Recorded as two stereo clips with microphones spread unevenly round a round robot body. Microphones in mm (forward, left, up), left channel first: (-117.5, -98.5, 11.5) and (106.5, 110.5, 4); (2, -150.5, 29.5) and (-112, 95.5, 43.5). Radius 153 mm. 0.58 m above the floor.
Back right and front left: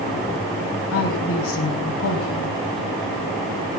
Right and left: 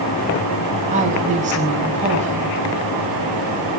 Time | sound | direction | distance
0.9 | a woman speaking | straight behind | 4 m